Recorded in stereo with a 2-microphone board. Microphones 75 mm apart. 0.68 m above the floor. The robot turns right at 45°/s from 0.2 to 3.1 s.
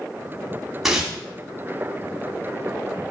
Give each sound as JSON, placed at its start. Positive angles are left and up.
{"t": 0.8, "sound": "tearing paper", "side_deg": -5, "distance_m": 2.0}